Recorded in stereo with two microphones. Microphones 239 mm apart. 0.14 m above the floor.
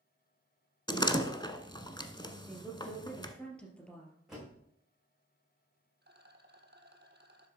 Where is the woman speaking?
5° left (ahead or behind), 3 m.